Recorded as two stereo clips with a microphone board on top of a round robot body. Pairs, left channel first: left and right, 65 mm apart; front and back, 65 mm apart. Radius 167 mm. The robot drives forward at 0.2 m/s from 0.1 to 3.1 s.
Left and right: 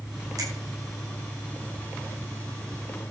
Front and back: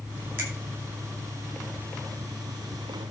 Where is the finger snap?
130° right, 6 m.